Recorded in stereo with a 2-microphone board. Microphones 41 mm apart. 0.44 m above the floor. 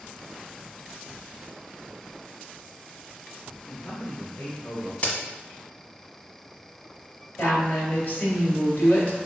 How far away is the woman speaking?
About 2.0 m.